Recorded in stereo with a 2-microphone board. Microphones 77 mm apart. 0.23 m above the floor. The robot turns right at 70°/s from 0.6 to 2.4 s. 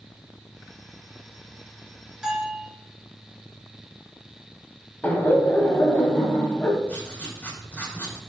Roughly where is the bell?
Centre.